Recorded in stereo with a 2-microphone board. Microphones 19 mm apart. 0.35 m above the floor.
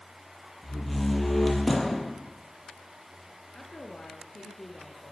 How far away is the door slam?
About 6 m.